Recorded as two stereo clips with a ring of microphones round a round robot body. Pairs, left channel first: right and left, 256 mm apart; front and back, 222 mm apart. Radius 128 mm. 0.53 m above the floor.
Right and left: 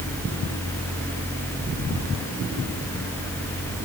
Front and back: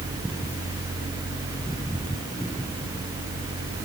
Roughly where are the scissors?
No scissors in this recording.